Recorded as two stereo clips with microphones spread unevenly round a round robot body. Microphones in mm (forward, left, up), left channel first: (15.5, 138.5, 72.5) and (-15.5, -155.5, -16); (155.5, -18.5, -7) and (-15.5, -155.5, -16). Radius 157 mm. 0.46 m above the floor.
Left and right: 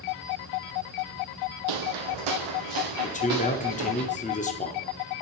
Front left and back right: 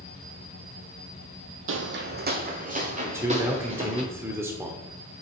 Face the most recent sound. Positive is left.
turn(degrees=160)